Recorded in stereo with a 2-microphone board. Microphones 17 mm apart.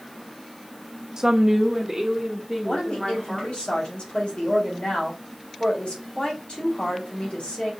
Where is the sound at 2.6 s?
80° left, 3.5 m.